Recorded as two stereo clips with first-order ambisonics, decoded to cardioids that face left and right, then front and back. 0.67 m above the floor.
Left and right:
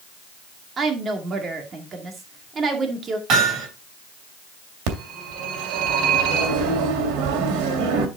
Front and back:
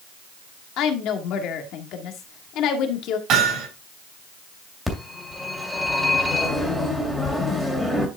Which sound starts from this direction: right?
A phone ringing, at 4.9 s.